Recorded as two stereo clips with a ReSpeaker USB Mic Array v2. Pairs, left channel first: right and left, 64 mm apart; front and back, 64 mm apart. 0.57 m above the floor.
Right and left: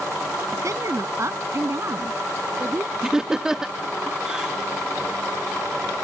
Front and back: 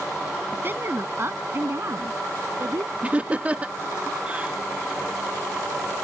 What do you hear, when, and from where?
0.5 s a woman speaking: 120° left; by 2.9 s 140° left
3.0 s laughter: 155° left